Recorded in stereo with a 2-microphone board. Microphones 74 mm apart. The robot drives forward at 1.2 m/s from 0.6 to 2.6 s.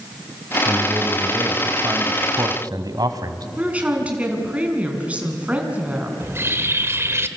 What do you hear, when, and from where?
0.7 s a man speaking: 30° right (ahead or behind), 3.5 m; by 3.5 s 60° right (ahead or behind), 2 m
3.6 s a woman speaking: 20° right (ahead or behind), 4.5 m
6.2 s a bird: 35° right (ahead or behind), 1.3 m